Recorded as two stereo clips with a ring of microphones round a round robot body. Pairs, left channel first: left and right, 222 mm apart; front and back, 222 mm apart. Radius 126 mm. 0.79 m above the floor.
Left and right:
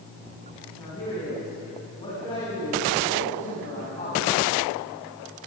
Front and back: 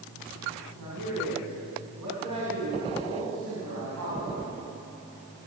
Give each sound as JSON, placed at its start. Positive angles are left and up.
{"t": 0.8, "sound": "a man speaking", "azimuth_deg": 165, "distance_m": 8.5}